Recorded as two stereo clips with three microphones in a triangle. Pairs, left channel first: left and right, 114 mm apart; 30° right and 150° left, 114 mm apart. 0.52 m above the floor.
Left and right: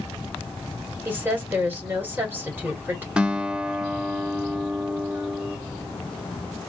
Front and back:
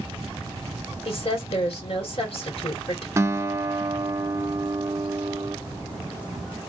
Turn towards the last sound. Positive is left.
turn(degrees=-165)